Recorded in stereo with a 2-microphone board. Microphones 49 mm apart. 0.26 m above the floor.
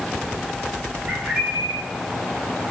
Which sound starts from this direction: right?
A bird, at 1.1 s.